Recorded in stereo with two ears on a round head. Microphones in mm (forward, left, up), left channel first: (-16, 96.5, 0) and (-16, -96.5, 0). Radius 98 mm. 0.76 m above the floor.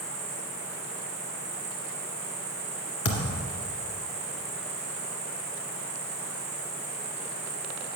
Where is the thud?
65° left (ahead or behind), 1.8 m.